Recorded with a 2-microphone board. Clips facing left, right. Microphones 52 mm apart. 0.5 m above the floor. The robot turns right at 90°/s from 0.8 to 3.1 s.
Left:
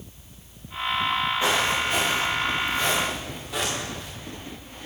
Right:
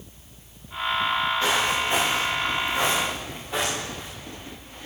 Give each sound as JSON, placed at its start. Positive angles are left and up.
{"t": 1.4, "sound": "footsteps", "side_deg": 15, "distance_m": 4.5}